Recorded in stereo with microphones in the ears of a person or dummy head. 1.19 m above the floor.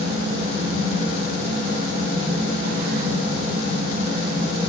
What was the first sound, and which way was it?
A fan, 40° right (ahead or behind).